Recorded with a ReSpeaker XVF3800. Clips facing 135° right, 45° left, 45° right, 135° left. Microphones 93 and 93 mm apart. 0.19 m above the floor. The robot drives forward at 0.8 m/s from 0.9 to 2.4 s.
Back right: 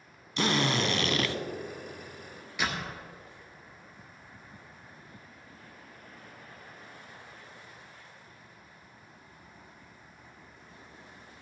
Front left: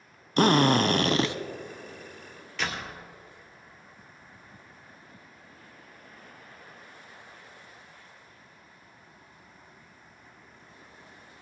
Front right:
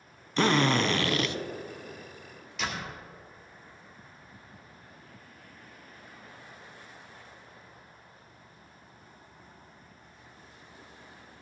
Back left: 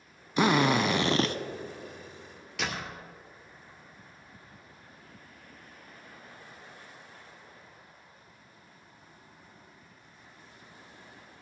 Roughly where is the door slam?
Behind left.